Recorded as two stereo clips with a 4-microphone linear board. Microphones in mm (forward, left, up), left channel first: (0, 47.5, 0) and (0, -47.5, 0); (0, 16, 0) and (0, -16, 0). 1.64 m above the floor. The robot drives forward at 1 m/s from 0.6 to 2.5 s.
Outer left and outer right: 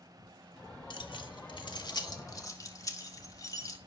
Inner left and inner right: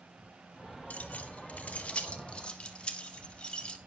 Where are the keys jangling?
55° left (ahead or behind), 1.5 m; by 3.8 s 35° left (ahead or behind), 2.0 m.